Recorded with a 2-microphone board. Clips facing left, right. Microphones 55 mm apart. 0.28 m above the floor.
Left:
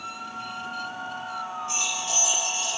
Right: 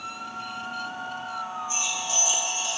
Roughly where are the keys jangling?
Left.